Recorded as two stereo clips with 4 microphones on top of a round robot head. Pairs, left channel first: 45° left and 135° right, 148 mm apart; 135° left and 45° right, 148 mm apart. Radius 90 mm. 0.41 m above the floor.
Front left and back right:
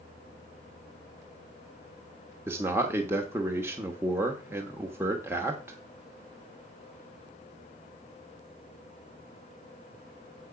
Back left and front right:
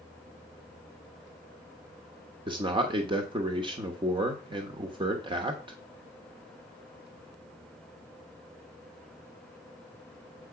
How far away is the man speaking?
About 1.0 m.